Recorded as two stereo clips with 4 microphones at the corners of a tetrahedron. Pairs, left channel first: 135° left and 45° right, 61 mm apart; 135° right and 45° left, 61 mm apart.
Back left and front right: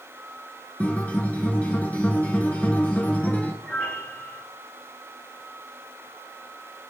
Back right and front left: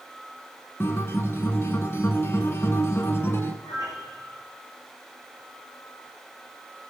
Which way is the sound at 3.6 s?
155° right.